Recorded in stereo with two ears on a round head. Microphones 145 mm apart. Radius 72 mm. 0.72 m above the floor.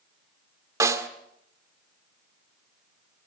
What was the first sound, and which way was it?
A snare drum, 20° right (ahead or behind).